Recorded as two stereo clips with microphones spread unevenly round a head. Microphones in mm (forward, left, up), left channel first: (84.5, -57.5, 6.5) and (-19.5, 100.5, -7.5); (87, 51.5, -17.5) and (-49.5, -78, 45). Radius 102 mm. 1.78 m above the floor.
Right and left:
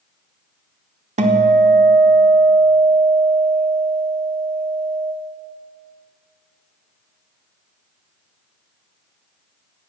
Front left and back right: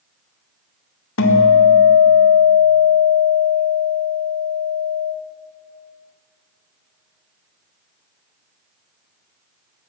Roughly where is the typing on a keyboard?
I don't hear typing on a keyboard.